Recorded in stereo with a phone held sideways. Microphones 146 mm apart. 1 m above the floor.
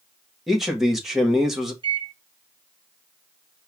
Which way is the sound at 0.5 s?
Centre (ahead or behind).